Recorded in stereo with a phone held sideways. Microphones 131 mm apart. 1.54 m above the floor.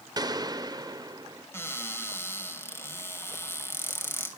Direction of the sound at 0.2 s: 30° right (ahead or behind).